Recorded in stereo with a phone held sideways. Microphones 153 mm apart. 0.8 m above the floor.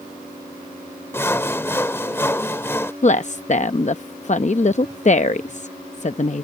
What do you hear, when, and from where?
1.1 s sawing: 15° left (ahead or behind)
3.0 s a woman speaking: 50° left (ahead or behind)